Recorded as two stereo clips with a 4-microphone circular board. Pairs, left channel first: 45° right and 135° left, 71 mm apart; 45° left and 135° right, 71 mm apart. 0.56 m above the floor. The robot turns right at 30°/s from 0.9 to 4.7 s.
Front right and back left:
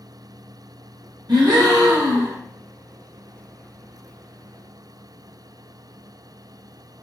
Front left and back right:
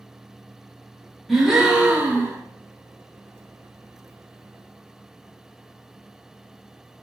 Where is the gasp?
135° left, 0.9 m; by 2.4 s 170° left, 0.9 m.